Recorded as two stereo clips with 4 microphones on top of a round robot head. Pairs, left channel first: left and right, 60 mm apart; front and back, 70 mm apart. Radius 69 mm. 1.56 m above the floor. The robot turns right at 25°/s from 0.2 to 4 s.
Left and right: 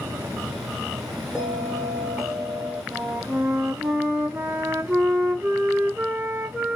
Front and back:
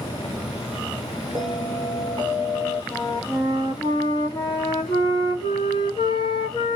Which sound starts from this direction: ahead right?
A flute, at 2.9 s.